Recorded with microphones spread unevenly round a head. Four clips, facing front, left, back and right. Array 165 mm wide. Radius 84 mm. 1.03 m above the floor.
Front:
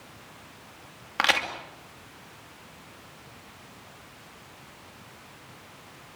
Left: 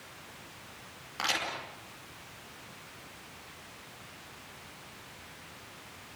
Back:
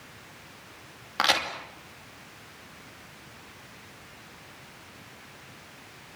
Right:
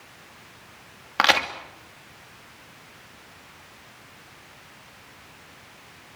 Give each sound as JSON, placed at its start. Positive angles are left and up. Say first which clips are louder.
{"t": 1.2, "sound": "a crack", "louder": "right 13 dB, even", "azimuth_deg": -90, "distance_m": 2.5}